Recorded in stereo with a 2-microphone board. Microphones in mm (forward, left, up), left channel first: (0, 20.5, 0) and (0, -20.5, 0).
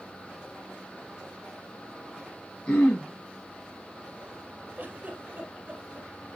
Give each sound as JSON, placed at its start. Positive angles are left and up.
{"t": 2.7, "sound": "throat clearing", "side_deg": 30, "distance_m": 4.0}
{"t": 4.8, "sound": "a giggle", "side_deg": -40, "distance_m": 3.5}